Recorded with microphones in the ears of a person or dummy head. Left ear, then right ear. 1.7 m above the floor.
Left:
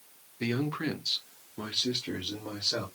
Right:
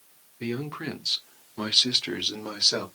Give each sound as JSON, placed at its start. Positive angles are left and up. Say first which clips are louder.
{"t": 0.4, "sound": "a man speaking", "louder": "left 1 dB", "side_deg": 10, "distance_m": 0.8}